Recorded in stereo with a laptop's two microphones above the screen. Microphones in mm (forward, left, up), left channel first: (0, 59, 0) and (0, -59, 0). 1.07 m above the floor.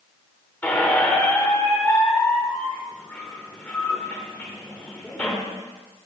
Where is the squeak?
15° left (ahead or behind), 2 m.